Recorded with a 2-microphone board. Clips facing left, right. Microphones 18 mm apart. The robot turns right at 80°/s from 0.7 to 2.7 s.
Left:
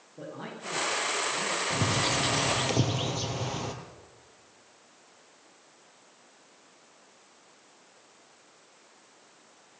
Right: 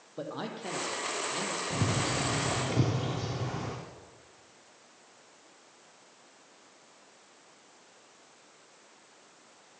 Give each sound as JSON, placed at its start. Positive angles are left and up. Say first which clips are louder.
{"t": 0.2, "sound": "a man speaking", "louder": "right 3 dB", "side_deg": -75, "distance_m": 7.0}
{"t": 1.7, "sound": "a bird", "louder": "left 3 dB", "azimuth_deg": 30, "distance_m": 4.0}